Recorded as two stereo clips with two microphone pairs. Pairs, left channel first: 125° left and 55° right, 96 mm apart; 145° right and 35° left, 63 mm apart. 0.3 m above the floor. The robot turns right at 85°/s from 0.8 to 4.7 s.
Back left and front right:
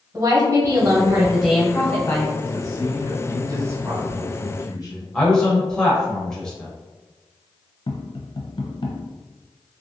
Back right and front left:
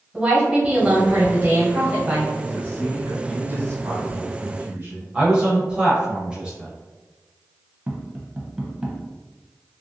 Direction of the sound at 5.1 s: 65° left.